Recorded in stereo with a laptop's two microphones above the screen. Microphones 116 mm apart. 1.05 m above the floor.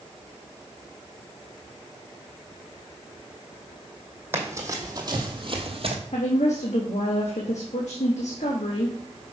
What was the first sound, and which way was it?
Running footsteps, 20° right (ahead or behind).